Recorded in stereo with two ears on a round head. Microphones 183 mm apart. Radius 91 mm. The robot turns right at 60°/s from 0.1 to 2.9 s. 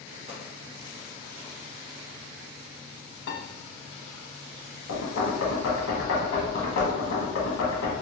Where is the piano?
55° left (ahead or behind), 0.6 m.